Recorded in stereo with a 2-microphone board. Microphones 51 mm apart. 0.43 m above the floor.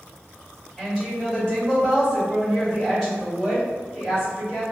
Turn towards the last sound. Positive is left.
turn(degrees=10)  # may be behind; listen again after turning